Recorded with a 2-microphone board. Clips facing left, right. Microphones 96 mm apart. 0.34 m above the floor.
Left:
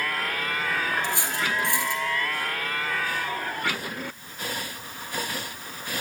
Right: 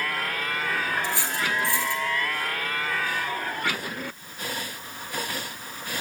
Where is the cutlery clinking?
20° left (ahead or behind), 3.5 m.